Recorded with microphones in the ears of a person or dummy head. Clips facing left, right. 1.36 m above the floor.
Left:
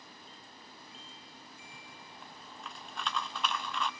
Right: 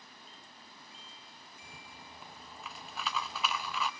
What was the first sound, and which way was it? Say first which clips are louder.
A rattle: even; 5° right (ahead or behind).